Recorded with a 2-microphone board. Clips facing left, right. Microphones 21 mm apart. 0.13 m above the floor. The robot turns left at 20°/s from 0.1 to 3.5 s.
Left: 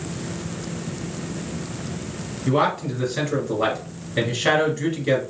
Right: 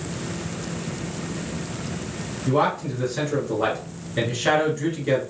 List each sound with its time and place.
2.5 s a man speaking: 25° left (ahead or behind), 1.5 m; by 5.2 s 15° left (ahead or behind), 1.5 m